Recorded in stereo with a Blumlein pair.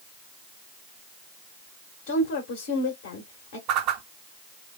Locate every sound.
2.1 s a woman speaking: 55° left, 1.6 m
3.7 s a whoosh: 40° right, 0.7 m